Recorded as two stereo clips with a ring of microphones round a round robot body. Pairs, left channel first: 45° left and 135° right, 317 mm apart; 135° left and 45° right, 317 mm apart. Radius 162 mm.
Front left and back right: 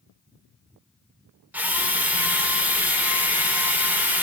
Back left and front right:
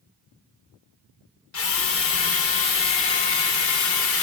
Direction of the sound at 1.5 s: 145° left.